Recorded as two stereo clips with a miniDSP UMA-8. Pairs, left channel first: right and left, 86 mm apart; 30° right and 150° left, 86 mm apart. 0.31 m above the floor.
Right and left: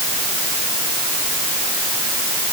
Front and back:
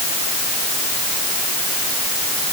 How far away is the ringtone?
I don't hear a ringtone.